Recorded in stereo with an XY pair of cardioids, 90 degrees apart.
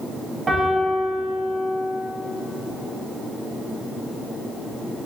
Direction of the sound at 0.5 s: 40° right.